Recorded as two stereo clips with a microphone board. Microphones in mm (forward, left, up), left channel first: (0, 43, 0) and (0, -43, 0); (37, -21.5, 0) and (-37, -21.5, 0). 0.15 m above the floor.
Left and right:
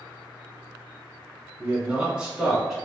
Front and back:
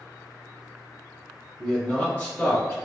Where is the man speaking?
60° right, 1.3 m; by 2.8 s 5° right, 1.4 m.